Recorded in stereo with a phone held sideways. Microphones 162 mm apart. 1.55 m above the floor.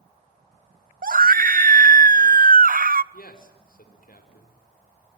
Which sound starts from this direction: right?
A scream, at 1.0 s.